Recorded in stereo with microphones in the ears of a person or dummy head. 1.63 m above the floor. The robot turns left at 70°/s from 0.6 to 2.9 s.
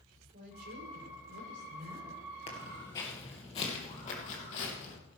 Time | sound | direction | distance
0.3 | a woman speaking | 55° right | 5 m
2.5 | footsteps | 35° left (ahead or behind) | 2 m